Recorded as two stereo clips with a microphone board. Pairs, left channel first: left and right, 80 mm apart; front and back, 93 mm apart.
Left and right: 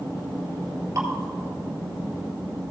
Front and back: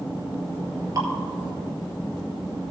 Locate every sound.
0.9 s dripping: 140° right, 1.8 m